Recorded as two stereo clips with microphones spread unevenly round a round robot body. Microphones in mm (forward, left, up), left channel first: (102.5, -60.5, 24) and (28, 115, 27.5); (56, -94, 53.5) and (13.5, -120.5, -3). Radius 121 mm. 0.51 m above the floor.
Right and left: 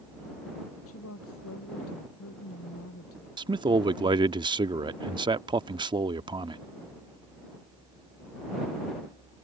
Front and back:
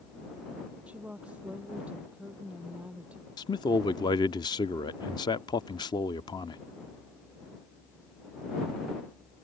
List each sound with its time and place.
0.9 s a woman speaking: 80° right
3.4 s a man speaking: 85° left